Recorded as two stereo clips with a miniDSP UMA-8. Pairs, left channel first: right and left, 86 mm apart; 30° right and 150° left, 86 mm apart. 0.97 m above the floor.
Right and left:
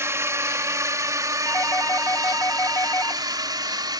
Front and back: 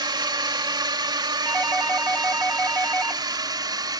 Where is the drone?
140° left; by 4.0 s 120° left.